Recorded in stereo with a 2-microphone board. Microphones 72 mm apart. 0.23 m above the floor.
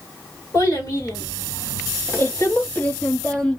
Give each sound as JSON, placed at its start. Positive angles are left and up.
{"t": 0.5, "sound": "a child speaking", "side_deg": 60, "distance_m": 1.9}